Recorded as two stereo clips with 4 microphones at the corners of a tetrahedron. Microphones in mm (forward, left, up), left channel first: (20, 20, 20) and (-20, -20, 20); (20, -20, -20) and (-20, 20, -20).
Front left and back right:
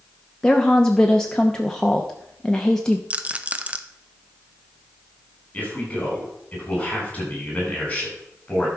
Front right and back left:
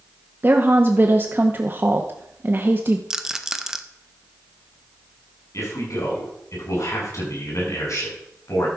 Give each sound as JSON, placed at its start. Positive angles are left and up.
{"t": 0.4, "sound": "a woman speaking", "azimuth_deg": 115, "distance_m": 0.8}
{"t": 3.1, "sound": "a rattle", "azimuth_deg": -160, "distance_m": 0.7}
{"t": 5.5, "sound": "a man speaking", "azimuth_deg": -20, "distance_m": 5.5}